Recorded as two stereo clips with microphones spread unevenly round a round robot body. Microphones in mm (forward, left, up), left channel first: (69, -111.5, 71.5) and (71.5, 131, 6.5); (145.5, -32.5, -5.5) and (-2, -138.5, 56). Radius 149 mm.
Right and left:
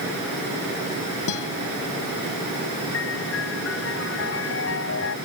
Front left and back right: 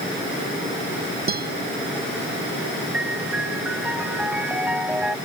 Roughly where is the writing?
No writing in this recording.